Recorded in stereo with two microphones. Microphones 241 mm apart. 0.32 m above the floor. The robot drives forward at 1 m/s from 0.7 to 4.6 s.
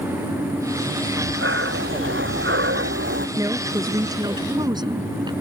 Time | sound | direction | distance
1.1 | breathing | 55° right (ahead or behind) | ?
3.4 | a woman speaking | 15° right (ahead or behind) | ?